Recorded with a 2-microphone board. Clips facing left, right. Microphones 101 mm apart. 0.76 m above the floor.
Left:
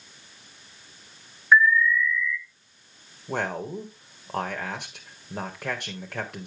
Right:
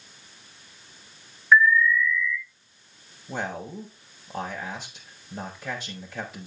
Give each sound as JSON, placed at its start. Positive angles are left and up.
{"t": 1.5, "sound": "an alarm", "side_deg": 10, "distance_m": 2.0}
{"t": 3.3, "sound": "a man speaking", "side_deg": 65, "distance_m": 3.5}